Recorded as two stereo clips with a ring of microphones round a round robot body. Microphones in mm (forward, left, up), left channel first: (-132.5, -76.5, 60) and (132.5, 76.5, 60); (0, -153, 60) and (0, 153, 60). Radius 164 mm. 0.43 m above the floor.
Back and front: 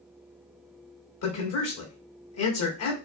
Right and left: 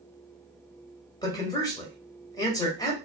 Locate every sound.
1.2 s a man speaking: 165° right, 2 m